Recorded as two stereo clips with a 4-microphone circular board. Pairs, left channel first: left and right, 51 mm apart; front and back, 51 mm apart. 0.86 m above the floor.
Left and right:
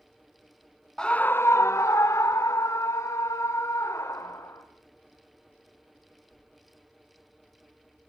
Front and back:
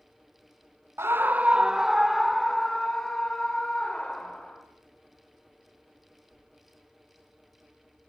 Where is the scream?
165° left, 0.5 m; by 4.6 s 70° left, 3 m.